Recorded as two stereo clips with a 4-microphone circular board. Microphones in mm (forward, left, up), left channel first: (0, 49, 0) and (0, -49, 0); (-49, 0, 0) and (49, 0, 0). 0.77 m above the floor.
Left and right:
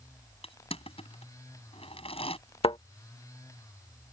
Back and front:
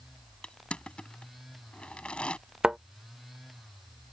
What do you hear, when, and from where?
0.4 s crushing: 100° left
2.6 s a thud: 80° left